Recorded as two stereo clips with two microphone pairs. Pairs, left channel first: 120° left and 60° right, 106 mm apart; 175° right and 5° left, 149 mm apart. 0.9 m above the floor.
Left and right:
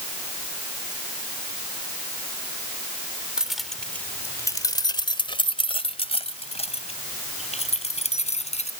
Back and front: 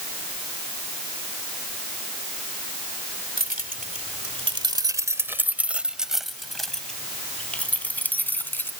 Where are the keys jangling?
20° left; by 8.7 s 105° left.